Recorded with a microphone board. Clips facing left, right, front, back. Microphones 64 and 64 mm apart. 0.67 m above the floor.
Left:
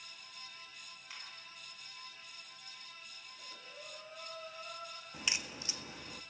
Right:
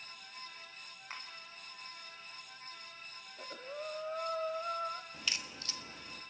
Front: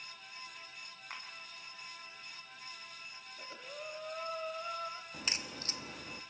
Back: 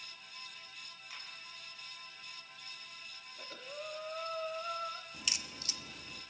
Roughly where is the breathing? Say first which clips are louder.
Right 10 dB, back 1 dB; right.